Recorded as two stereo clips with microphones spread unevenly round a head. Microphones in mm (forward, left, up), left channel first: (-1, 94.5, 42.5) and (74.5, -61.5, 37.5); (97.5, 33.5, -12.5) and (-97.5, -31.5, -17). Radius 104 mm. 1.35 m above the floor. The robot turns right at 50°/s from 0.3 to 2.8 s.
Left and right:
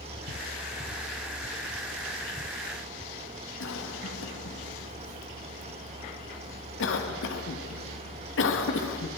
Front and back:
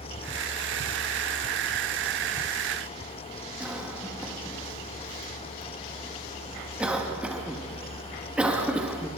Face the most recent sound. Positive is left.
turn(degrees=115)